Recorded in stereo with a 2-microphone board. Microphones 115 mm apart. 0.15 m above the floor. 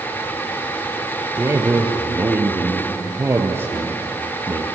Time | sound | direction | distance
1.4 | a man speaking | 20° right (ahead or behind) | 3 m